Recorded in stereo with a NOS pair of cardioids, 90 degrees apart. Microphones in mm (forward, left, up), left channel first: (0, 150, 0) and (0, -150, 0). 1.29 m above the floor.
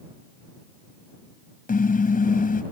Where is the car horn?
30° left.